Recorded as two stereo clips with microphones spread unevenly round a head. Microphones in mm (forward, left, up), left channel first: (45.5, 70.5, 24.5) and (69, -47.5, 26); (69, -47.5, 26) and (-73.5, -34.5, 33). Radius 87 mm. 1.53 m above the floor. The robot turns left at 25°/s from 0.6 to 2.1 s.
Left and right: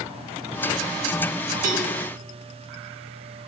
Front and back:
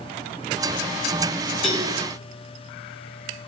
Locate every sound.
1.6 s a cowbell: 95° right, 4 m; by 1.9 s 100° right, 4 m